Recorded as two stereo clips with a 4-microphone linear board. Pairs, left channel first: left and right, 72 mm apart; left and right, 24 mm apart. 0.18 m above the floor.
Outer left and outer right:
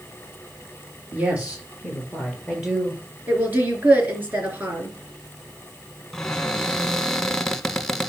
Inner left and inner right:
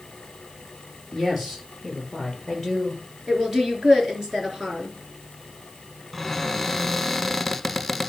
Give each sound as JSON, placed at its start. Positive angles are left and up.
{"t": 1.1, "sound": "a woman speaking", "side_deg": -20, "distance_m": 4.5}
{"t": 3.3, "sound": "a woman speaking", "side_deg": -25, "distance_m": 3.0}
{"t": 6.1, "sound": "a cupboard door", "side_deg": 5, "distance_m": 0.8}